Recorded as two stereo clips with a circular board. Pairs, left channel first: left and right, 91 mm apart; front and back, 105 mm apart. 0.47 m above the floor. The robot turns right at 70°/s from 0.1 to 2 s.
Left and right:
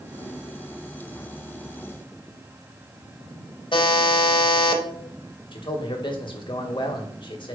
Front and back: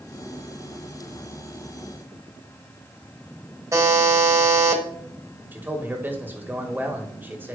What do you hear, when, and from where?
3.7 s a buzzer: 120° left, 1.1 m
5.5 s a man speaking: 110° left, 1.4 m